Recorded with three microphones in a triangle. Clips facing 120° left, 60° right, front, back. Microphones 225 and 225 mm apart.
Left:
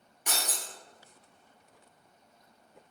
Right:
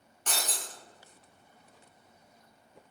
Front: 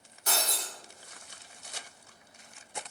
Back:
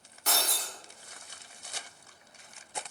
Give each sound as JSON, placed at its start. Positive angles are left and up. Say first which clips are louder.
{"t": 0.3, "sound": "breaking glass", "louder": "even, even", "azimuth_deg": -160, "distance_m": 1.4}